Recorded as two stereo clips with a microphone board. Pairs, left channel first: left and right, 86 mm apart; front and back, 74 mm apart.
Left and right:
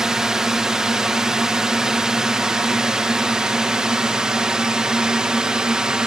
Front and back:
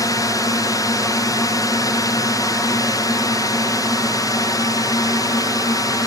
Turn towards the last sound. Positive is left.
turn(degrees=-10)